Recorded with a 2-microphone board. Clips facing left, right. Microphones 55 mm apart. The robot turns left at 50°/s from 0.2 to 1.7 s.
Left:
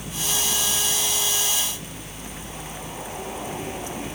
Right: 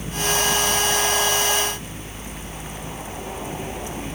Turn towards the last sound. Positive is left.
No sound to turn to.